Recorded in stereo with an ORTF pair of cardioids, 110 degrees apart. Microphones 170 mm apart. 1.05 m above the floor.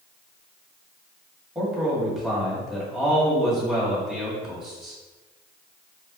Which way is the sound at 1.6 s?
Straight ahead.